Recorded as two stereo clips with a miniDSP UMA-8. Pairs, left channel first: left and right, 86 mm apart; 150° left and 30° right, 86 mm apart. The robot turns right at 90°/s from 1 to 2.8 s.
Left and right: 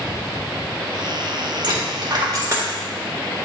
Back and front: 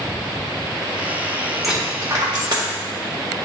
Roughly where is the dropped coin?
Behind right.